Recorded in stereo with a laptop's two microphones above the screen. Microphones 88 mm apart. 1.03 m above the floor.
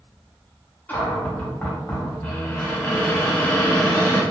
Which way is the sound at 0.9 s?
20° left (ahead or behind).